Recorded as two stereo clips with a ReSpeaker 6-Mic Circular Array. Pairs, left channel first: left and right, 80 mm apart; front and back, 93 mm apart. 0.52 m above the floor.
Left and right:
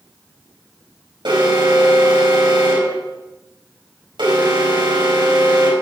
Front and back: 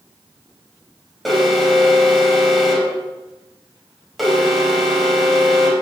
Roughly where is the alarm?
Right.